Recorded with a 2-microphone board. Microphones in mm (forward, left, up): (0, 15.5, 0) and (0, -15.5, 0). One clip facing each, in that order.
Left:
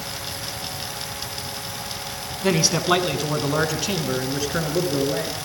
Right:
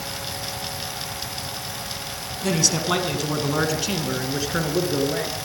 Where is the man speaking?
25° left (ahead or behind), 1.5 m; by 5.4 s 10° right (ahead or behind), 3 m.